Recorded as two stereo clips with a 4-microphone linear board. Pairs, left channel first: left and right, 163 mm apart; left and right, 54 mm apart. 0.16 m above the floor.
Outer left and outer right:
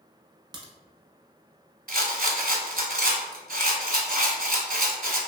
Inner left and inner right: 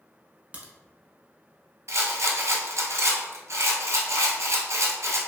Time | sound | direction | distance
0.5 | a crack | 25° right (ahead or behind) | 0.7 m
1.9 | a rattle | 65° right (ahead or behind) | 0.7 m